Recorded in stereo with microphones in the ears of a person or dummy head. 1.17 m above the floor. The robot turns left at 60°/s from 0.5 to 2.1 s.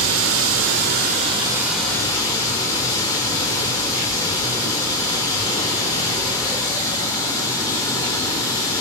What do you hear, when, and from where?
0.0 s running water: 100° right, 1.6 m; by 8.8 s 160° left, 1.6 m